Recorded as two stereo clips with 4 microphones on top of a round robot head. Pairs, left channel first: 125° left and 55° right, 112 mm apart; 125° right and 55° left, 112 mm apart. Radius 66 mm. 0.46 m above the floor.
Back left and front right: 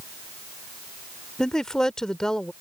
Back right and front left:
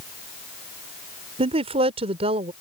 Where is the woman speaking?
40° left.